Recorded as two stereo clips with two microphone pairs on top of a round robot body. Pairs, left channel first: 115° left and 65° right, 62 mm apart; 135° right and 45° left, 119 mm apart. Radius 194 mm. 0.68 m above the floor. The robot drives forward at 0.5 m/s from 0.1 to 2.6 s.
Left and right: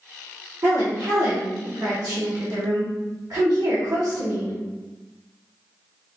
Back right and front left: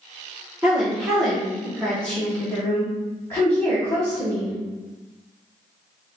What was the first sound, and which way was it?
A woman speaking, 35° right.